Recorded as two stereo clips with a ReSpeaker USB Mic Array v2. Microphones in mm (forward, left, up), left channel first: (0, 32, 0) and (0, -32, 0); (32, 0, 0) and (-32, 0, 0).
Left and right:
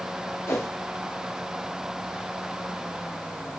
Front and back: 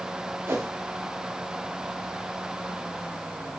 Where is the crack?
I don't hear a crack.